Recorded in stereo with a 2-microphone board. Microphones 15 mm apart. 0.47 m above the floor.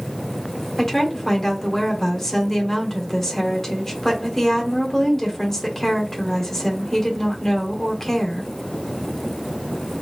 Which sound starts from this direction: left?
A woman speaking, at 0.8 s.